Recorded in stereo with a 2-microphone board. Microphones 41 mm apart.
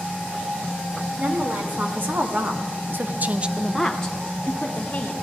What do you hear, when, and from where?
1.2 s a woman speaking: 55° right (ahead or behind), 2.5 m; by 5.1 s 35° left (ahead or behind), 1.9 m